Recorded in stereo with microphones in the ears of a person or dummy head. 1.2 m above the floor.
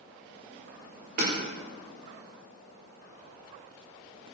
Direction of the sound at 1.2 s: 45° right (ahead or behind).